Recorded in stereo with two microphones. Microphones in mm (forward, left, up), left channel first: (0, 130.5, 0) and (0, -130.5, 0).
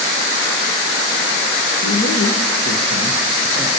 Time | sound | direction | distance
1.8 | a man speaking | 65° left (ahead or behind) | 1.3 m